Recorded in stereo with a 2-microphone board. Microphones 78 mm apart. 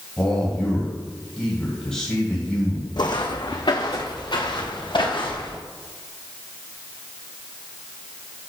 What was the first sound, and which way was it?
A man speaking, 10° left (ahead or behind).